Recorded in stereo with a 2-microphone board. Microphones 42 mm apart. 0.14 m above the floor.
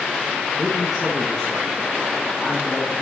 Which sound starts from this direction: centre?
A man speaking, at 0.6 s.